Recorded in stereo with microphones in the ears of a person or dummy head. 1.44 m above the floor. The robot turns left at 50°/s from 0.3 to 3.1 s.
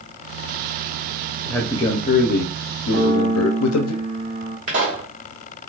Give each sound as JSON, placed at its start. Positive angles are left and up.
{"t": 1.4, "sound": "a man speaking", "azimuth_deg": 180, "distance_m": 0.7}
{"t": 2.9, "sound": "a piano", "side_deg": -25, "distance_m": 0.9}
{"t": 4.7, "sound": "a pop", "side_deg": -40, "distance_m": 1.6}